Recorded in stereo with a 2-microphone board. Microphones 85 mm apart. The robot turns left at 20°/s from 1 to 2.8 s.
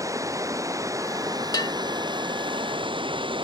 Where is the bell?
55° left (ahead or behind).